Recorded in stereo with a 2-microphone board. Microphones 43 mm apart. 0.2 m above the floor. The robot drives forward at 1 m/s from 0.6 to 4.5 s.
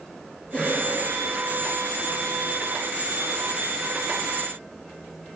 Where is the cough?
25° left (ahead or behind), 3 m; by 0.9 s 30° left (ahead or behind), 3 m.